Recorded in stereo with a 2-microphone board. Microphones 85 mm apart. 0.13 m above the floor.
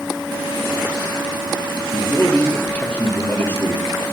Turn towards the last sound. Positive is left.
turn(degrees=20)  # may be behind; listen again after turning